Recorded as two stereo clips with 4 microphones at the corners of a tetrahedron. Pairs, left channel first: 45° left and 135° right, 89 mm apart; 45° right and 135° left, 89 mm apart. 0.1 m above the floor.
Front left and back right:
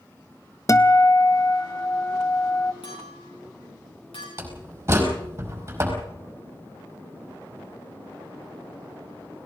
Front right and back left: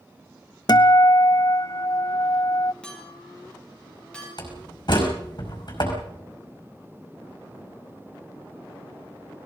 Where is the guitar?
5° right, 0.8 m.